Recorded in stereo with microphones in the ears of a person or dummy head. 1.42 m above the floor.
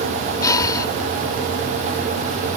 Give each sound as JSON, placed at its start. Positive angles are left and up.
{"t": 0.4, "sound": "breathing", "side_deg": 20}